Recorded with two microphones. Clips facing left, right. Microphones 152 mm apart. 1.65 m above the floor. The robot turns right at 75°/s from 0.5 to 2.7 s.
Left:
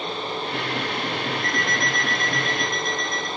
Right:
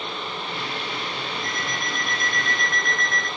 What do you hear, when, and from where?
1.4 s an alarm clock: 65° left, 5.5 m; by 3.3 s 160° left, 5.5 m